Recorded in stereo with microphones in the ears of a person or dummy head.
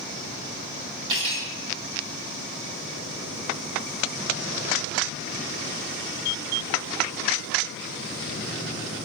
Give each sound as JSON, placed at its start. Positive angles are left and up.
{"t": 1.1, "sound": "cutlery clinking", "side_deg": -30, "distance_m": 2.5}